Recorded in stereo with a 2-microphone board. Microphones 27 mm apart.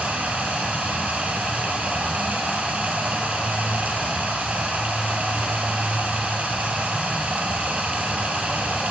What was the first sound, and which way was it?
Running water, 60° right (ahead or behind).